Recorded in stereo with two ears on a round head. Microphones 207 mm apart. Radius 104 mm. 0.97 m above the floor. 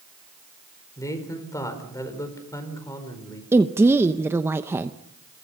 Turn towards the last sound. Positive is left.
turn(degrees=-10)  # may be behind; listen again after turning